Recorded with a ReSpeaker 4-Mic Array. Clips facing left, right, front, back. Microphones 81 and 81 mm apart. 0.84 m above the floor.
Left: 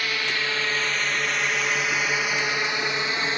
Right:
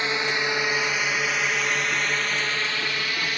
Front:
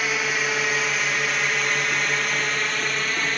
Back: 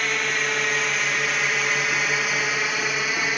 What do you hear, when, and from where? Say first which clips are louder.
0.0 s a drone: right 2 dB, even; 80° right; by 3.4 s 110° left